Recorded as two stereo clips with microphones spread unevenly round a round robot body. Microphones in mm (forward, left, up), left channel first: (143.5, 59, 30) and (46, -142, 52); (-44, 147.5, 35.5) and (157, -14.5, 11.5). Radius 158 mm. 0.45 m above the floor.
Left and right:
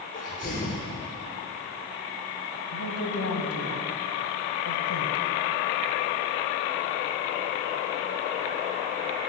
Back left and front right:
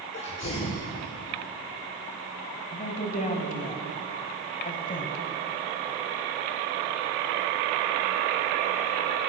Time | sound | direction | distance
0.1 | a sneeze | 110° left | 1.9 m
2.7 | a woman speaking | 80° left | 2.5 m